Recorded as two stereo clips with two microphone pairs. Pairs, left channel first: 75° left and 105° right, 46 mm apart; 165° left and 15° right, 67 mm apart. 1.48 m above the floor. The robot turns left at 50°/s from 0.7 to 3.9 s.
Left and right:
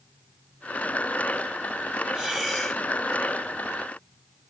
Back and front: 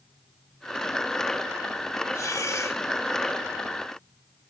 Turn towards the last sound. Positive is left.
turn(degrees=100)